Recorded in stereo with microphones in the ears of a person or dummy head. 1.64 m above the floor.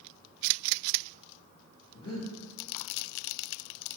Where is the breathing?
25° left (ahead or behind), 0.8 m.